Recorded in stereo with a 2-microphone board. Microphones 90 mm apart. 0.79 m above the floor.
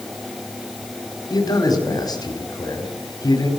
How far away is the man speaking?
About 4.5 m.